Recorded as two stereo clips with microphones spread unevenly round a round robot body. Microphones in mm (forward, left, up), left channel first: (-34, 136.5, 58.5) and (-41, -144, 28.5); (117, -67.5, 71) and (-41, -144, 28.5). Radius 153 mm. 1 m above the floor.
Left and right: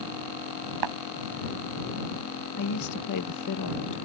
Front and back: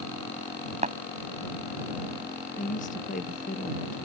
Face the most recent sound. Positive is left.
turn(degrees=85)